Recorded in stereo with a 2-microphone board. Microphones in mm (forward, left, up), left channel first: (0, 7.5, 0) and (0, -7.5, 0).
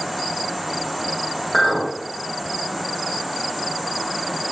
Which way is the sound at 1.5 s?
20° left (ahead or behind).